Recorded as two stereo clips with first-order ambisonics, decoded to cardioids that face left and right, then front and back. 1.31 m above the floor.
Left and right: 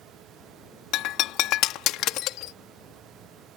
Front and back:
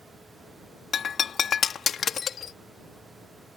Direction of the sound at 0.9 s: 60° left.